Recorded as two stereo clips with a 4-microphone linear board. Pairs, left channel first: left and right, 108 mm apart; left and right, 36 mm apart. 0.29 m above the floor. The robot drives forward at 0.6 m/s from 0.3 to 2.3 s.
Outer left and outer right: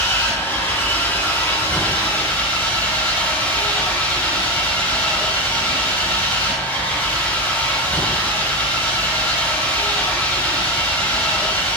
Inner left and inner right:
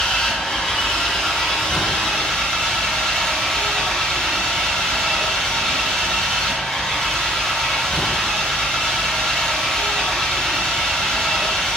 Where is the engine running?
20° left (ahead or behind), 3.5 m; by 11.8 s 15° left (ahead or behind), 4.5 m.